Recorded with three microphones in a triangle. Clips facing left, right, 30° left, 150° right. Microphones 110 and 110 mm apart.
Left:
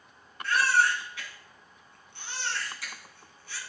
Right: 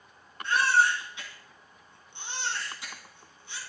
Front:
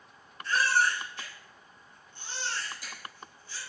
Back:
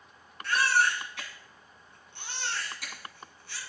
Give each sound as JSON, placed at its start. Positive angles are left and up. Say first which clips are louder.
{"t": 0.4, "sound": "a baby crying", "louder": "right 1 dB, back 1 dB", "azimuth_deg": -160, "distance_m": 1.9}